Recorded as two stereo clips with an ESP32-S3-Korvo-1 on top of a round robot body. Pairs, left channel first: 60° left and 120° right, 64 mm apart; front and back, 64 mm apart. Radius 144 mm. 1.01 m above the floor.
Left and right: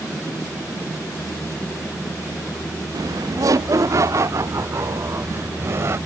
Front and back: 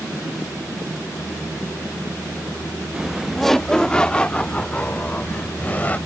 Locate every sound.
2.9 s laughter: 105° right; by 6.0 s 70° right